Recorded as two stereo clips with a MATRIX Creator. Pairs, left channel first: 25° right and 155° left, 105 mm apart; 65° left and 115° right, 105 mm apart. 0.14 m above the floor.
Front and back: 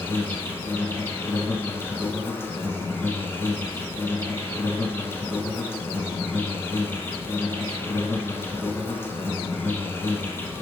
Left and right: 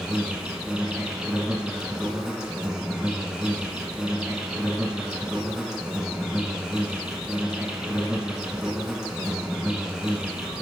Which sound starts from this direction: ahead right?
An insect, at 0.0 s.